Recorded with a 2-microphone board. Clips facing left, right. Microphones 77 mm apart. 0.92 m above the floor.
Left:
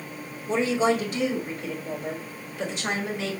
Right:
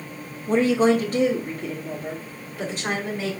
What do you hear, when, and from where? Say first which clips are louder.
0.5 s a woman speaking: right 4 dB; 45° right (ahead or behind), 0.8 m; by 3.3 s 40° right (ahead or behind), 2.5 m